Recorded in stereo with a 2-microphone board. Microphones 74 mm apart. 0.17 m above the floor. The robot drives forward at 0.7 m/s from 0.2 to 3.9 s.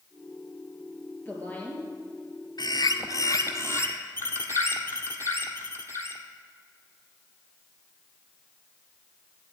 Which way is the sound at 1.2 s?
25° left (ahead or behind).